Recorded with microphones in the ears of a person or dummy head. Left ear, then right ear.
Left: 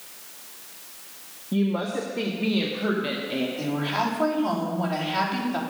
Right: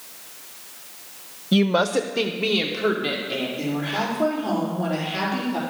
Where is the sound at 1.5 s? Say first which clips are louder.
Right 7 dB; 75° right (ahead or behind), 0.6 m; by 3.5 s 5° left (ahead or behind), 1.6 m.